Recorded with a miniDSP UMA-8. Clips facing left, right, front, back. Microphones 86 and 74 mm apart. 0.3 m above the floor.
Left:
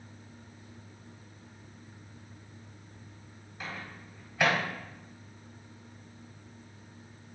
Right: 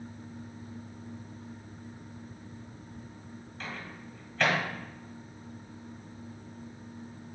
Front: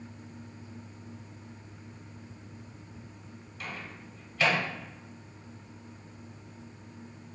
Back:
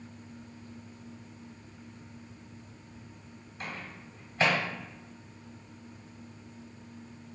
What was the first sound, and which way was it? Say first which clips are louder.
A microwave: even, even; 160° left.